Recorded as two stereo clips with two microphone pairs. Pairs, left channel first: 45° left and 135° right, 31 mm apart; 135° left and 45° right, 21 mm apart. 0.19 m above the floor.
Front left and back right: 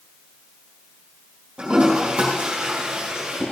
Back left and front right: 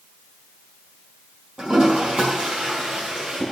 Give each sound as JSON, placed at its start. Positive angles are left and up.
{"t": 1.6, "sound": "a toilet flushing", "azimuth_deg": -85, "distance_m": 5.0}